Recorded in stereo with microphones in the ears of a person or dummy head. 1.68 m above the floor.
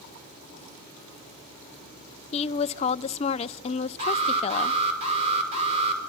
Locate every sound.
2.3 s a woman speaking: 35° left (ahead or behind), 0.8 m
4.0 s an alarm: 35° right (ahead or behind), 5 m